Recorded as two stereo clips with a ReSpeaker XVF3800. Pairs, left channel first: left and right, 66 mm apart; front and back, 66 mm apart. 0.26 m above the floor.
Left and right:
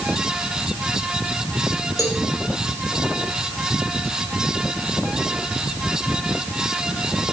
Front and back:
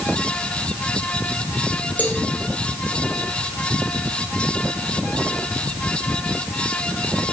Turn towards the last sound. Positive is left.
turn(degrees=65)